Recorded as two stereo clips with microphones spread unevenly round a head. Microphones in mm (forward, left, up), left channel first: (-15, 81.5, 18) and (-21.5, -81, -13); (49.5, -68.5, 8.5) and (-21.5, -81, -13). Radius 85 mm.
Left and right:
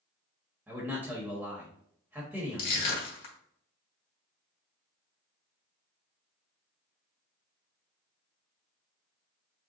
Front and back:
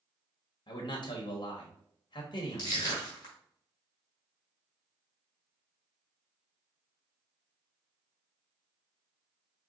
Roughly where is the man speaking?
Ahead.